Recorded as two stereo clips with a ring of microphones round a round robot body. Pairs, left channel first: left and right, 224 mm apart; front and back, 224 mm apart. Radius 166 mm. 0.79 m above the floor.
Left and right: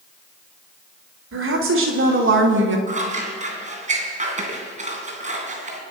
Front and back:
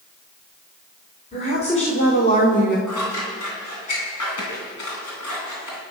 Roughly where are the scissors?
Ahead right.